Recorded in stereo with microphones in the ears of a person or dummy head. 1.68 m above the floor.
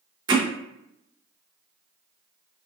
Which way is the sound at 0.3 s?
25° right (ahead or behind).